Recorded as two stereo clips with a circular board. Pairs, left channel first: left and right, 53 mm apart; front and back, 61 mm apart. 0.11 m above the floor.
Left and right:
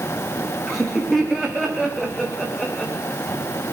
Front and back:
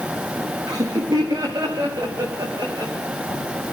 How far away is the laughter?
About 7 m.